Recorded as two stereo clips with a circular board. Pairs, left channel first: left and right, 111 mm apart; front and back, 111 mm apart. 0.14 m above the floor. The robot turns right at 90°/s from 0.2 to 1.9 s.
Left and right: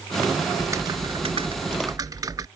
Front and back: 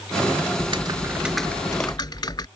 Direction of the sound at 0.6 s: 160° right.